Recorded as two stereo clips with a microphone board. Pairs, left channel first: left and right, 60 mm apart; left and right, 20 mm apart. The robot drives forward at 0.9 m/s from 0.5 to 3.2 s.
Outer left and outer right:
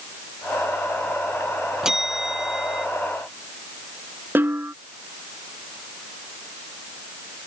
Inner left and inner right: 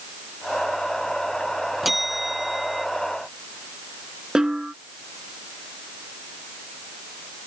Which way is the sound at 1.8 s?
5° right (ahead or behind).